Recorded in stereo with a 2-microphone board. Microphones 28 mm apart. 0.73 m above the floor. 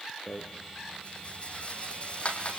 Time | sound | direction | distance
0.3 | a rattle | 45° left (ahead or behind) | 4.5 m